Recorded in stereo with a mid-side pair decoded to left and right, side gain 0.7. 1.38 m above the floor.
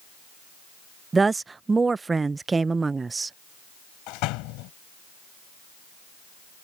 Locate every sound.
1.1 s a woman speaking: 20° right
4.1 s a door slam: 65° left